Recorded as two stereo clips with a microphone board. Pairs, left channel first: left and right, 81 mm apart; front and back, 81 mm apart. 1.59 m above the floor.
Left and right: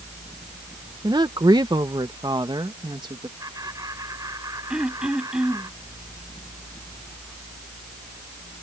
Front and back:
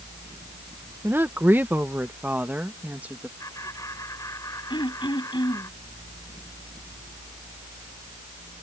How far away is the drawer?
No drawer in this recording.